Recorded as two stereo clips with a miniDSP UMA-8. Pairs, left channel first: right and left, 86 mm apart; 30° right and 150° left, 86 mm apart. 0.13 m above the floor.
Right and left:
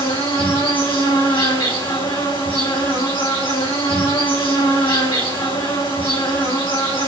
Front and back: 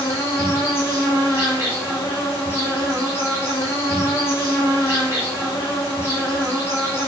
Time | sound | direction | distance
0.0 | an insect | 90° right | 5 m